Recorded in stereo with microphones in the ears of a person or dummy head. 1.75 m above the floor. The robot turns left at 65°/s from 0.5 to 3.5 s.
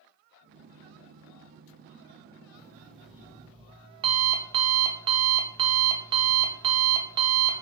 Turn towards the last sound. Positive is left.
turn(degrees=-35)